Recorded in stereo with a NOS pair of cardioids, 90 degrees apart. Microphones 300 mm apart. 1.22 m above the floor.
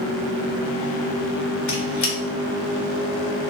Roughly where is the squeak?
Left.